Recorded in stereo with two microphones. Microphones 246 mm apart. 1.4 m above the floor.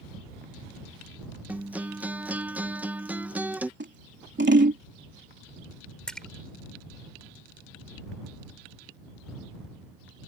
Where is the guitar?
5° right (ahead or behind).